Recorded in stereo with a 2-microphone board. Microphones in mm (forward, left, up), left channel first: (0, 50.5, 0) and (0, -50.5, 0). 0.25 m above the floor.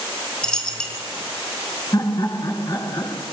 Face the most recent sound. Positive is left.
turn(degrees=40)  # may be behind; listen again after turning